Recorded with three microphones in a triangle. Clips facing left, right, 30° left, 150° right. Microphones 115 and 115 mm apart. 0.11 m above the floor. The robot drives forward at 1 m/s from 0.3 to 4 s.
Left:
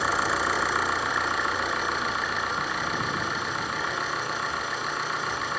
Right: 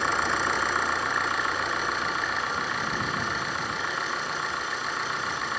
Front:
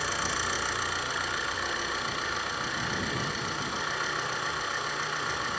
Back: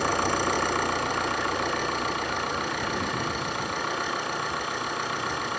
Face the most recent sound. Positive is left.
turn(degrees=180)